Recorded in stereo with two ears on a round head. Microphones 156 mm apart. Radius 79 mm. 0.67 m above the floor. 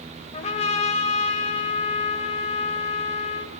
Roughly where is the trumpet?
Left.